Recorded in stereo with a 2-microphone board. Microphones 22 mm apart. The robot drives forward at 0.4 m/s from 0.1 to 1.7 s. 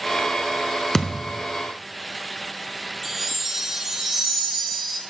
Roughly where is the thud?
Left.